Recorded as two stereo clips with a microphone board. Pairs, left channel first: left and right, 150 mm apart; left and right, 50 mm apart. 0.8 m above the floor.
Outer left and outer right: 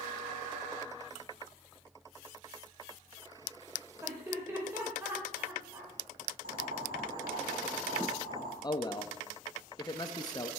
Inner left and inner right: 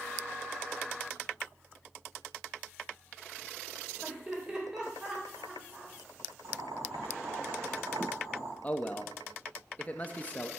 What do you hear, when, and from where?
4.0 s laughter: 15° right (ahead or behind), 3.5 m
6.4 s boiling: 80° right, 4 m
8.6 s a man speaking: 25° left (ahead or behind), 0.6 m